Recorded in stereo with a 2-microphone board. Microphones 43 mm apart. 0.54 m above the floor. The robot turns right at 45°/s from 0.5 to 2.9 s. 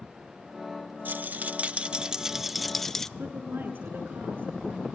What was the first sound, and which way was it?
A rattle, 70° right.